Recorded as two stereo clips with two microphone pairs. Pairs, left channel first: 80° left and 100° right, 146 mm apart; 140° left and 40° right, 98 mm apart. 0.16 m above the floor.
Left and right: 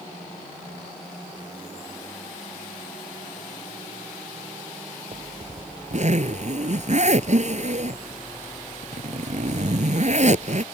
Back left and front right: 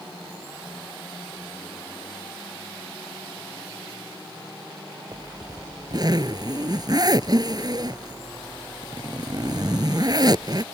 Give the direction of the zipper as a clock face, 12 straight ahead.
3 o'clock.